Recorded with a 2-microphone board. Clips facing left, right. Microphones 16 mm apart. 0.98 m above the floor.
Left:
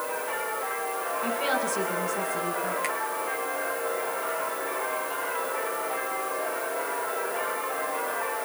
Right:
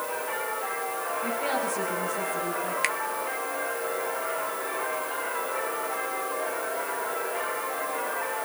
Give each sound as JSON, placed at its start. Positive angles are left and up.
{"t": 1.2, "sound": "a woman speaking", "side_deg": 40, "distance_m": 9.0}
{"t": 2.8, "sound": "a finger snap", "side_deg": -35, "distance_m": 1.4}